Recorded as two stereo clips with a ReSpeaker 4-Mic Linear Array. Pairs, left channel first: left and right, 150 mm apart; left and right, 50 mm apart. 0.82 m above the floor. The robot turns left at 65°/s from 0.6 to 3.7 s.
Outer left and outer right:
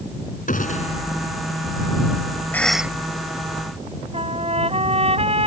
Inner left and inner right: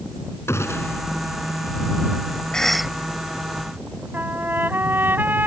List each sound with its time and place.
0.5 s a gunshot: 65° left (ahead or behind); by 1.0 s 35° left (ahead or behind)
2.5 s a cough: 15° left (ahead or behind); by 2.9 s 15° right (ahead or behind)
4.1 s a trumpet: 40° right (ahead or behind)